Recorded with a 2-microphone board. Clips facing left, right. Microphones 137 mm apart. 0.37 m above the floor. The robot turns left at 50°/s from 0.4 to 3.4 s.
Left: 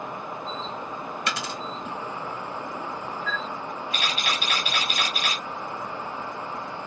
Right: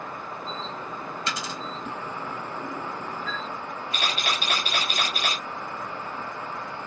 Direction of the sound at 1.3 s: 70° left (ahead or behind).